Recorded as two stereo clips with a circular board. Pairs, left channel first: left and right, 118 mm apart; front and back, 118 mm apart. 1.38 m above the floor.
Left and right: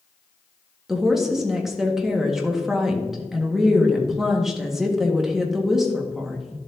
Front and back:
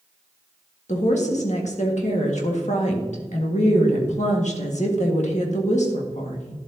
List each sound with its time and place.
0.9 s a woman speaking: 5° right, 1.6 m